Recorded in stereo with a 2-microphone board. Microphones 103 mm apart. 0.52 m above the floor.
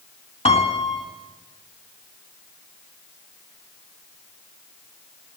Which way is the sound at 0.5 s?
85° left.